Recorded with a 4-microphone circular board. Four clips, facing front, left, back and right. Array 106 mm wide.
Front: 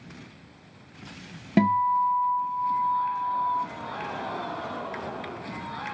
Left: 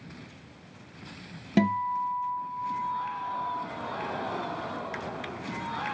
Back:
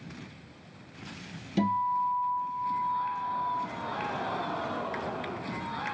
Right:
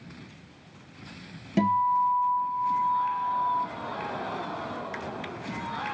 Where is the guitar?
20° left, 0.7 m.